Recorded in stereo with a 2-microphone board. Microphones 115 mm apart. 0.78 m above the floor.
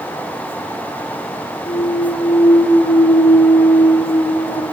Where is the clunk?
85° left, 6 m.